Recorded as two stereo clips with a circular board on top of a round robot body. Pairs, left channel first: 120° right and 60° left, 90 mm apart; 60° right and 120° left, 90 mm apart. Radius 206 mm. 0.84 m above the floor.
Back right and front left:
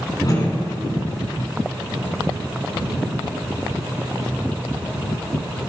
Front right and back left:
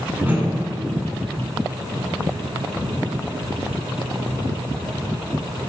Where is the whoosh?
170° right, 9.5 m.